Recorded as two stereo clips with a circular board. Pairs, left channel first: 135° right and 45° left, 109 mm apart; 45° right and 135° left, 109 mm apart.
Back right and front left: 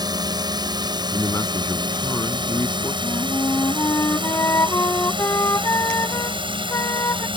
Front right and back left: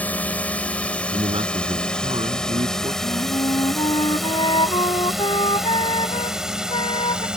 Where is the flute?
75° right.